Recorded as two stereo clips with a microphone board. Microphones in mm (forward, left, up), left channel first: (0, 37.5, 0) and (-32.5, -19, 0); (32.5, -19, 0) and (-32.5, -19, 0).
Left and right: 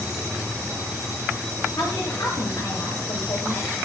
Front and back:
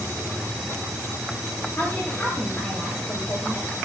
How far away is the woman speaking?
About 7 m.